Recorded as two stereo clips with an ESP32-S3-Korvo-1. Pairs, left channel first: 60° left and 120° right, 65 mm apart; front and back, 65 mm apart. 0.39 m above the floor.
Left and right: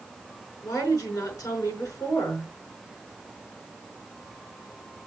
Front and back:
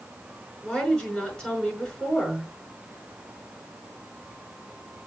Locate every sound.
0.6 s a woman speaking: 75° left, 5.5 m